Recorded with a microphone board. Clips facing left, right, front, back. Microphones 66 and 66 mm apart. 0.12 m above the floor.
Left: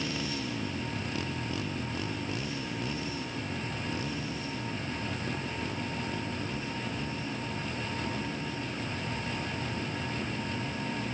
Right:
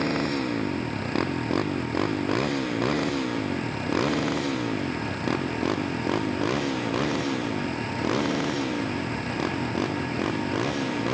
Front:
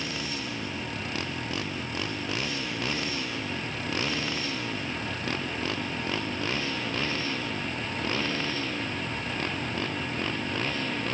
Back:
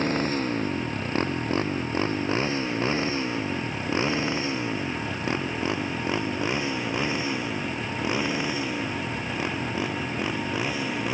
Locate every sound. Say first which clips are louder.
0.0 s a motorcycle: right 9 dB, back 9 dB; 130° right; by 11.1 s 100° right